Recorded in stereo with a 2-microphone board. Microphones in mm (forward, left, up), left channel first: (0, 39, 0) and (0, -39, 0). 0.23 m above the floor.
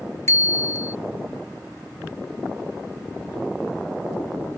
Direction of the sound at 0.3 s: 40° left (ahead or behind).